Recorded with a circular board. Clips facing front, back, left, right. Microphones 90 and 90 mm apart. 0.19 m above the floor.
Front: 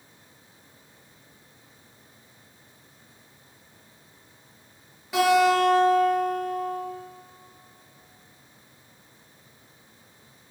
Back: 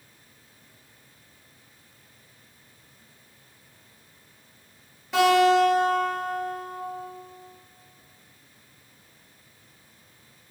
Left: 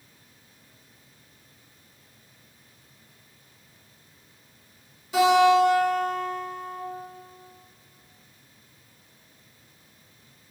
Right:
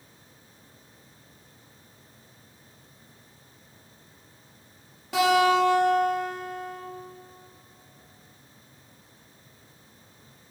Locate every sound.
5.1 s a guitar: 85° right, 1.6 m